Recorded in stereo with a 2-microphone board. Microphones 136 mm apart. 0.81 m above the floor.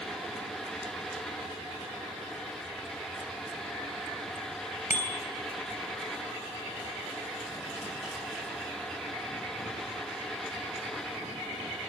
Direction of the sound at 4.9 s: 70° left (ahead or behind).